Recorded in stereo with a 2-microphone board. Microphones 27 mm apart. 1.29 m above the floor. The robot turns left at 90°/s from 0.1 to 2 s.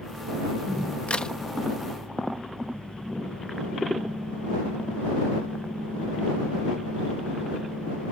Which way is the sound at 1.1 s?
45° left (ahead or behind).